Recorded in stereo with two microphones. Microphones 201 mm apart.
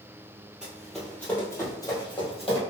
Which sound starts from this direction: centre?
Running footsteps, at 0.6 s.